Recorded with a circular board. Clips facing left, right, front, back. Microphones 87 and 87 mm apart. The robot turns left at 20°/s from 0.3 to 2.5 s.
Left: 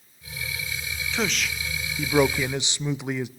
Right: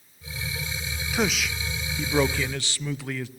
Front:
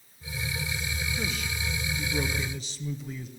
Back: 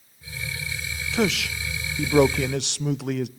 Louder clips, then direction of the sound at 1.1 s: Right 2 dB, back 14 dB; 170° right.